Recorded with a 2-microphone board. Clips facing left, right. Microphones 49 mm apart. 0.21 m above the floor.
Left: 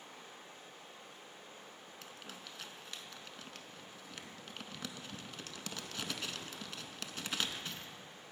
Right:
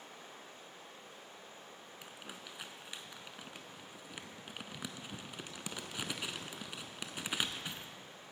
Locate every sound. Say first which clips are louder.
0.0 s running water: right 1 dB; 80° right, 3.5 m
2.0 s crumpling: right 1 dB; 15° right (ahead or behind), 0.5 m